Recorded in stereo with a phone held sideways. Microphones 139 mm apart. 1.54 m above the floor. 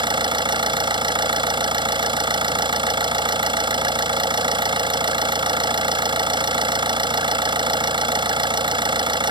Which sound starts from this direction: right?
An engine running, at 0.0 s.